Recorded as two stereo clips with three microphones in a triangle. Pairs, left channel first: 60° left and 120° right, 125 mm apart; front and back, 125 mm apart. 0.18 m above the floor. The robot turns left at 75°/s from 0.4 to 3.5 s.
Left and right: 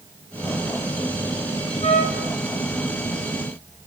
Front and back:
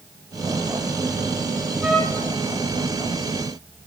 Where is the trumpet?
100° left, 1.0 m; by 2.3 s 65° left, 1.0 m.